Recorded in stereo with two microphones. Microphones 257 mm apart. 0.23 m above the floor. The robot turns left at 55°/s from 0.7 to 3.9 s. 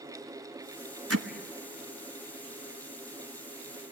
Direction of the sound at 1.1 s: 65° right (ahead or behind).